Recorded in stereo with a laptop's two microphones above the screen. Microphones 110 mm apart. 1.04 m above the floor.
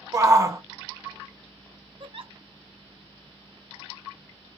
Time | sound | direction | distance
0.1 | a shout | 30° right (ahead or behind) | 0.6 m
2.0 | a giggle | 55° right (ahead or behind) | 0.6 m